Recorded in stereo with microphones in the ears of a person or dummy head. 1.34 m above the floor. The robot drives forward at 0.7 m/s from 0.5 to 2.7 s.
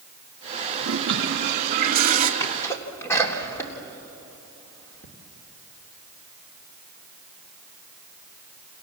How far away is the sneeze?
About 3 m.